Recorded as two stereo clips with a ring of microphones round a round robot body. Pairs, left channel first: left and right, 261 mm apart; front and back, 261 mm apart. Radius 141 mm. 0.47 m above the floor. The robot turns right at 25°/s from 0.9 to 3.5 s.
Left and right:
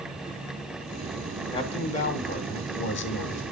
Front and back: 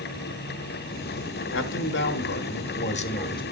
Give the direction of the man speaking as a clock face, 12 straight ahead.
11 o'clock.